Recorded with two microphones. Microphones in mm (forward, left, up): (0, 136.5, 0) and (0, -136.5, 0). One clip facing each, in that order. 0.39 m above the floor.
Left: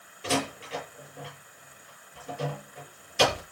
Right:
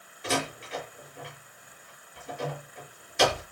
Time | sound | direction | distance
0.2 | a door slam | 35° left (ahead or behind) | 8 m